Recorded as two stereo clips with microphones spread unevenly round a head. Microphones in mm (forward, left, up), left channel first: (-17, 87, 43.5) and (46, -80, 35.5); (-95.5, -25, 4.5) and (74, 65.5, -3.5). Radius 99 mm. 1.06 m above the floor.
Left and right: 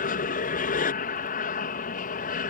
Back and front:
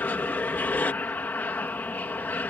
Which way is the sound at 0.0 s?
130° left.